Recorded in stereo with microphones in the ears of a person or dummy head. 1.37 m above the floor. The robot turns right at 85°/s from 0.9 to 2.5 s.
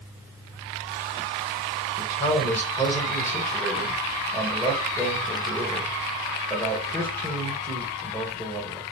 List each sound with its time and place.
2.0 s a man speaking: 125° left, 1.2 m; by 8.8 s 170° left, 1.2 m